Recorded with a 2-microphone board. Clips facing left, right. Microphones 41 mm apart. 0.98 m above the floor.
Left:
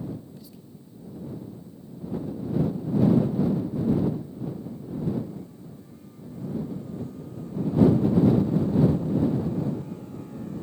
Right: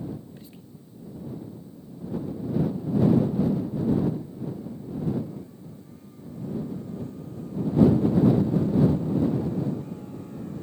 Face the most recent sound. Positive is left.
turn(degrees=-40)  # may be behind; listen again after turning